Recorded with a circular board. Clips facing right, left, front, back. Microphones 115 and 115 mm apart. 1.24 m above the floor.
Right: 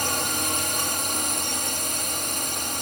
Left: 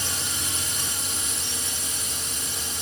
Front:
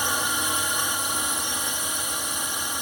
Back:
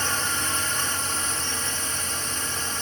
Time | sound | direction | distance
0.0 | a drone | 75° right | ?